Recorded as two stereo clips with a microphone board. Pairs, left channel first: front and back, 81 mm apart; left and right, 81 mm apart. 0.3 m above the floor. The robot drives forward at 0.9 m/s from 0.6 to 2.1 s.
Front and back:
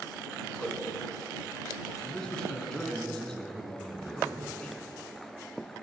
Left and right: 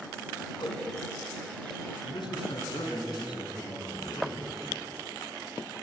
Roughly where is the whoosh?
Left.